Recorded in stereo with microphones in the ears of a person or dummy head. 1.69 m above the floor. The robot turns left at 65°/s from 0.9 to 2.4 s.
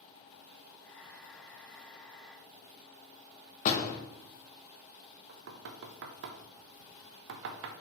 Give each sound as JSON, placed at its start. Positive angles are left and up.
{"t": 3.6, "sound": "a door slam", "side_deg": 40, "distance_m": 1.2}
{"t": 5.3, "sound": "knocking", "side_deg": -60, "distance_m": 0.5}